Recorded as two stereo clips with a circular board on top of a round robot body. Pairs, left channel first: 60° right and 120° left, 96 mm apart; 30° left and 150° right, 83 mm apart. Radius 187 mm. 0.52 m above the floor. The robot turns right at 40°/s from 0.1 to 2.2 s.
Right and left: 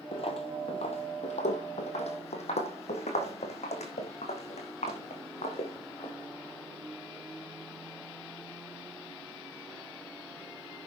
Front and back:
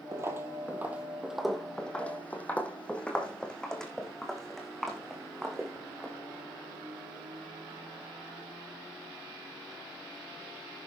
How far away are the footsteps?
About 1.3 m.